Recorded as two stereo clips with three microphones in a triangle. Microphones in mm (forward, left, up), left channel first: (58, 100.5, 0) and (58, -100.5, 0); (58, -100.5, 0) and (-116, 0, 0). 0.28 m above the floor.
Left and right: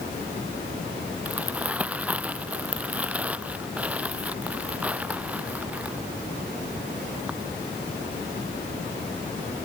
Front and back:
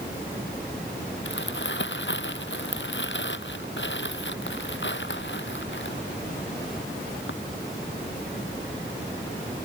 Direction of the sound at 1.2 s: 5° right.